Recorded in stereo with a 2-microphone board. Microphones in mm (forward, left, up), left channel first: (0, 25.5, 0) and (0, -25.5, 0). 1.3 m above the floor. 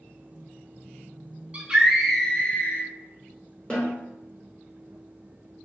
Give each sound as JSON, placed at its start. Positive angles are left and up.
{"t": 1.5, "sound": "a scream", "side_deg": -25, "distance_m": 0.7}
{"t": 3.7, "sound": "a snare drum", "side_deg": 20, "distance_m": 1.0}